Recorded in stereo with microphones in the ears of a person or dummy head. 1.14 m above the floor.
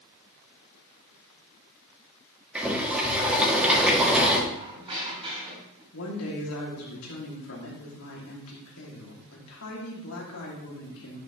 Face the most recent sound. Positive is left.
turn(degrees=80)